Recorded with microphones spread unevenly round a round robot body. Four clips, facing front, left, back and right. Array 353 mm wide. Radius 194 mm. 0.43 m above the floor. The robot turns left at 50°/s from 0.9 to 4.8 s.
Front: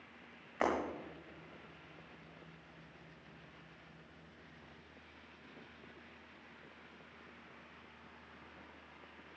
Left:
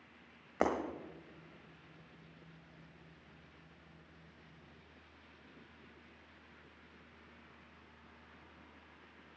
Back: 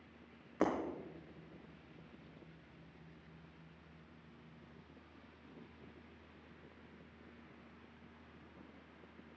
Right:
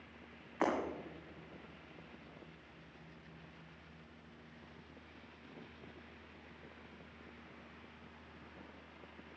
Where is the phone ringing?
I don't hear a phone ringing.